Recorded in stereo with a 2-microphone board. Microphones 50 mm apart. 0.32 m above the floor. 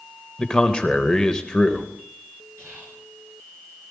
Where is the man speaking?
15° left (ahead or behind), 0.9 m.